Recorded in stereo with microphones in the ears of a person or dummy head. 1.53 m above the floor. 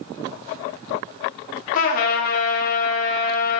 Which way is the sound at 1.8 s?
45° left (ahead or behind).